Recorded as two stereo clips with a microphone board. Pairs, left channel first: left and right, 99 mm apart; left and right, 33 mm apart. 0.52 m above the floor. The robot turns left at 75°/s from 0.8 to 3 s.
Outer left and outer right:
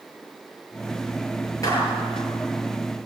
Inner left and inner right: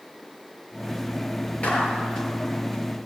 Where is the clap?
35° left (ahead or behind), 9 m; by 2.3 s 85° left, 9 m.